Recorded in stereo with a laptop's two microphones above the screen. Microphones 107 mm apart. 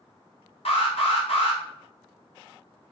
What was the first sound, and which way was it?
An alarm, 65° left (ahead or behind).